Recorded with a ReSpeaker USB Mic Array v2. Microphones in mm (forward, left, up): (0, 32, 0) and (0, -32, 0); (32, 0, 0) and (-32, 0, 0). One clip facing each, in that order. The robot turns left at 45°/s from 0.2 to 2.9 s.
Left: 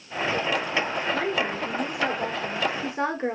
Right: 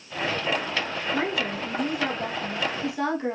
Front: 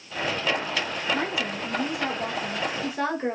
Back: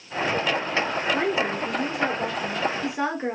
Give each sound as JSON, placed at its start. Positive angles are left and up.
{"t": 1.1, "sound": "a woman speaking", "azimuth_deg": -160, "distance_m": 1.4}